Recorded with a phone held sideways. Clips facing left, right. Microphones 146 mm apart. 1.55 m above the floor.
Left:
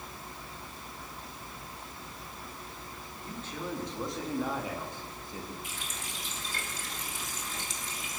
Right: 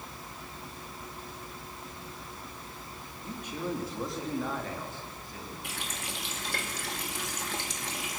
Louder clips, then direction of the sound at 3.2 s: Right 3 dB; 20° right (ahead or behind).